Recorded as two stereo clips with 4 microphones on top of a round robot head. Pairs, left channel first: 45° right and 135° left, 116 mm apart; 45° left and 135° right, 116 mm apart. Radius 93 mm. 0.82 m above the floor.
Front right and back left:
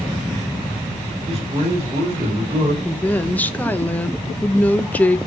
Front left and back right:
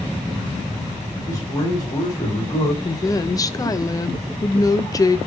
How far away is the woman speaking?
About 0.5 m.